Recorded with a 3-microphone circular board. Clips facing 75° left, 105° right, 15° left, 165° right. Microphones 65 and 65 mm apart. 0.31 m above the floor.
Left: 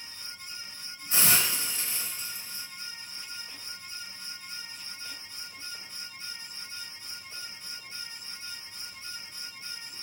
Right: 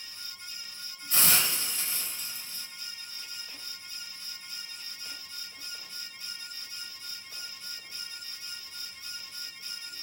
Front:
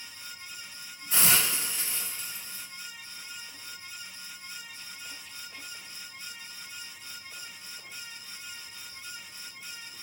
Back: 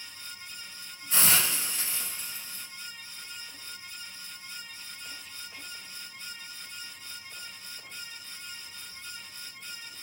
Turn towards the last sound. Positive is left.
turn(degrees=100)